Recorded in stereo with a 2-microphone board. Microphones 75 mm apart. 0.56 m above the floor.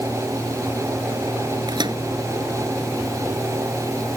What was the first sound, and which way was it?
A microwave, 80° right.